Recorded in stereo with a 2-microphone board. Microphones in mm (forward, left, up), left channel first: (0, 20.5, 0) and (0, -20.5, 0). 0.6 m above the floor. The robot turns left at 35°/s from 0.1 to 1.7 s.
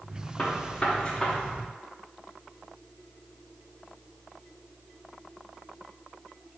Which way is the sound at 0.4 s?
30° left (ahead or behind).